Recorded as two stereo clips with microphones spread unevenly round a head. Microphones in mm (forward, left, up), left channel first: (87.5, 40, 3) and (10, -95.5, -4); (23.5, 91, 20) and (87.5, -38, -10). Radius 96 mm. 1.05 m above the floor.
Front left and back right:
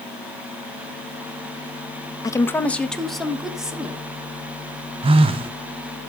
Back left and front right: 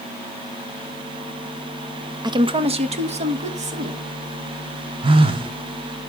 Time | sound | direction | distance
2.2 | a woman speaking | 5° right | 0.7 m
5.0 | a phone buzzing | 110° right | 0.6 m